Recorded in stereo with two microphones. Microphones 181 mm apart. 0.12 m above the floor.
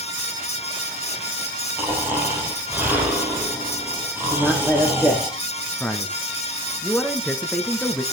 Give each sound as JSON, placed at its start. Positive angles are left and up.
{"t": 1.8, "sound": "snoring", "side_deg": -10, "distance_m": 4.0}
{"t": 4.3, "sound": "a man speaking", "side_deg": -5, "distance_m": 3.0}
{"t": 5.8, "sound": "a man speaking", "side_deg": 5, "distance_m": 1.3}